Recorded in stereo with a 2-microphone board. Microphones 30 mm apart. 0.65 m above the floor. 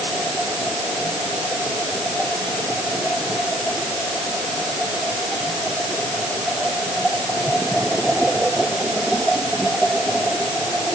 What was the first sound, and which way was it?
Only background noise.